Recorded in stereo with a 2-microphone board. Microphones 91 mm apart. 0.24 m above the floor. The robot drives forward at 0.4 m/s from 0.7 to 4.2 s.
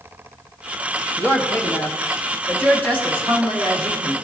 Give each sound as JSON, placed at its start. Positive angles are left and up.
{"t": 1.2, "sound": "a woman speaking", "side_deg": 25, "distance_m": 1.1}